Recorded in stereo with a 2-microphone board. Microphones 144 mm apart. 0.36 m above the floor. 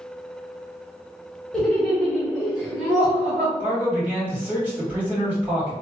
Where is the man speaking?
15° right (ahead or behind), 1.9 m.